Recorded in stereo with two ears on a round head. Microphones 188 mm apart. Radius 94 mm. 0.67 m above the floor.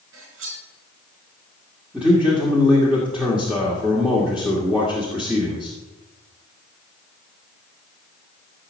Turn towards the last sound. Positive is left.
turn(degrees=-5)  # may be behind; listen again after turning